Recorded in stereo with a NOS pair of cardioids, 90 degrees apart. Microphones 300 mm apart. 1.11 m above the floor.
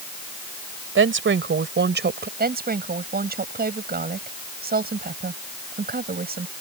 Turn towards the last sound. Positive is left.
turn(degrees=-30)